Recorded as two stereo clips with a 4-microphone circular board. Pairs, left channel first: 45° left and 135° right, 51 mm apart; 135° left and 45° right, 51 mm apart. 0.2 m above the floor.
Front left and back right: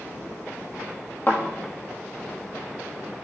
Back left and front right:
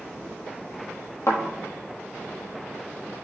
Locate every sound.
1.3 s a thud: 100° left, 1.0 m